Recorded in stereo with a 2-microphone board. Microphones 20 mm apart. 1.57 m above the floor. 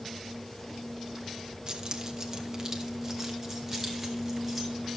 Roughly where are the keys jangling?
Right.